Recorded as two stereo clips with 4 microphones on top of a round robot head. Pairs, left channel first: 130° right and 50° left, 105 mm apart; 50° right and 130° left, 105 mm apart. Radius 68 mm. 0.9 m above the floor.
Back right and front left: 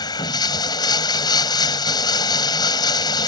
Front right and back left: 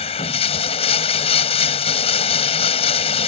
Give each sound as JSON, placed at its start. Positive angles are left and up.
{"t": 0.0, "sound": "running water", "azimuth_deg": -80}